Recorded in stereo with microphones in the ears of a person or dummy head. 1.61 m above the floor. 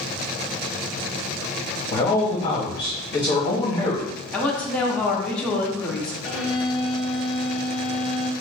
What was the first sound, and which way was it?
A man speaking, 25° left (ahead or behind).